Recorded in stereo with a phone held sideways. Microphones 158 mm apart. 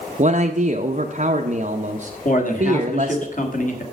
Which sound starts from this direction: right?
A man speaking, at 0.2 s.